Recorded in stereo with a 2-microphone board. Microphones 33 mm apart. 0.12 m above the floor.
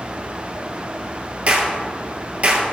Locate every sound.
1.5 s a clap: 45° right (ahead or behind), 2 m